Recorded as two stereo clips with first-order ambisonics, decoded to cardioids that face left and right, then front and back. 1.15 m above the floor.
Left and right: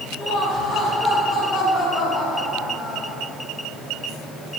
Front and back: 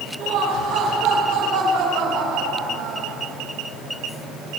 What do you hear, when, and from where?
0.2 s laughter: 165° right, 6.5 m; by 3.2 s straight behind, 5.5 m